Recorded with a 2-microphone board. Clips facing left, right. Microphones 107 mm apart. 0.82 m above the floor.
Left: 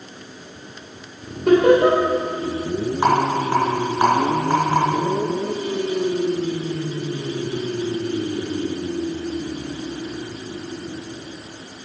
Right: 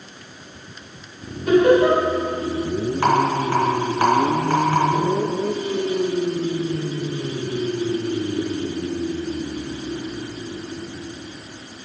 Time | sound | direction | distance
1.5 | laughter | 70° left (ahead or behind) | 3.5 m
3.0 | a rattle | 15° left (ahead or behind) | 3 m